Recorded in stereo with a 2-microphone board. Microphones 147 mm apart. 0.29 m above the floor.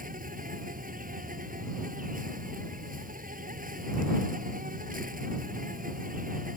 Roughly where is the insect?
Right.